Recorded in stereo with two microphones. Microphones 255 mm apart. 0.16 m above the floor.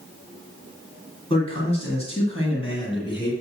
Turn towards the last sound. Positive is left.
turn(degrees=20)  # may be behind; listen again after turning